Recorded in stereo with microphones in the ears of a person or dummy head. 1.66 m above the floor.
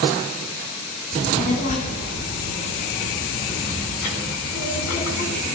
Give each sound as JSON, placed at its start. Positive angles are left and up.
{"t": 1.1, "sound": "a child speaking", "side_deg": 45, "distance_m": 10.0}